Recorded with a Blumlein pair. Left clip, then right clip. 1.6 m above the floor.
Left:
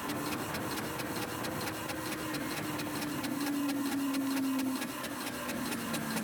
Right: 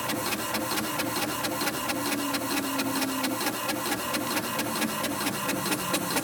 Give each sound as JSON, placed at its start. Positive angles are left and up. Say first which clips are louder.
{"t": 0.0, "sound": "a machine running", "louder": "right 7 dB", "azimuth_deg": -60}